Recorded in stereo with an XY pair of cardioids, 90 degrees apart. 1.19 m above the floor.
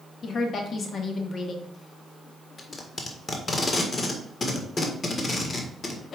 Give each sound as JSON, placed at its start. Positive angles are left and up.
{"t": 0.2, "sound": "a woman speaking", "azimuth_deg": 55, "distance_m": 1.7}
{"t": 2.6, "sound": "tape being pulled", "azimuth_deg": 40, "distance_m": 1.7}